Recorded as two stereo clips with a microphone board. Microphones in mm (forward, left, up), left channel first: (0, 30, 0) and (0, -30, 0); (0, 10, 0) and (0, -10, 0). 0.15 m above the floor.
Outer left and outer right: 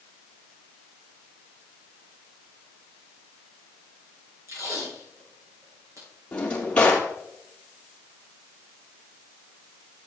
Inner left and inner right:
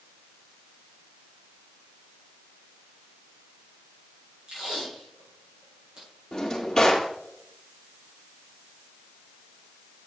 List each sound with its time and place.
4.5 s tape being pulled: 60° right (ahead or behind), 5 m
6.3 s a drawer: 20° left (ahead or behind), 2.5 m